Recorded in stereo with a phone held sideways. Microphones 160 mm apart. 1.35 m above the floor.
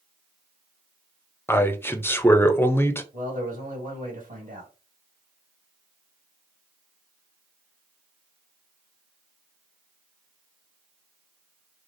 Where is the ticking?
No ticking in this recording.